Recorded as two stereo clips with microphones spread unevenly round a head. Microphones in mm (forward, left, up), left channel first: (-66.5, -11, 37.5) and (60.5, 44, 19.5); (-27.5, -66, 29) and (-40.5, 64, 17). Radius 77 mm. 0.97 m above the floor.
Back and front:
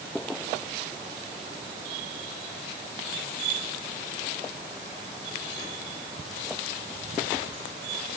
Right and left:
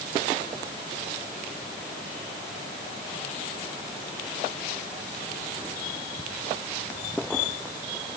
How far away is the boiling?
No boiling in this recording.